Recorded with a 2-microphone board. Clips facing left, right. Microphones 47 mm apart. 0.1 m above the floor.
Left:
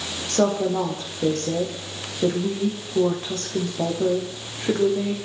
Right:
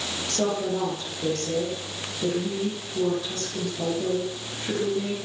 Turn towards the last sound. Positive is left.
turn(degrees=45)  # may be behind; listen again after turning